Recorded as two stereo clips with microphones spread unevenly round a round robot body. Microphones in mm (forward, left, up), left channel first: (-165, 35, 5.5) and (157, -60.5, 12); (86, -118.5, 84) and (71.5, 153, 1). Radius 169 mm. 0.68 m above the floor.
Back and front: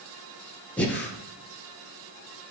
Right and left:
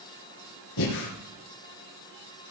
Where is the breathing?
110° right, 4 m.